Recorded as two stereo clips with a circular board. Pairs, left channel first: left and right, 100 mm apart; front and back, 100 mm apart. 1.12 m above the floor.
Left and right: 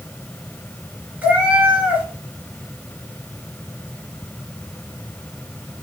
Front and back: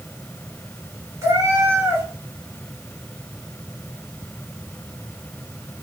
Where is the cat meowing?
150° right, 1.3 m.